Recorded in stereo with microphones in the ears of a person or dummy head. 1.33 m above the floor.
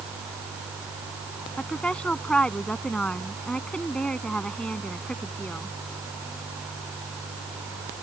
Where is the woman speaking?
10° left (ahead or behind).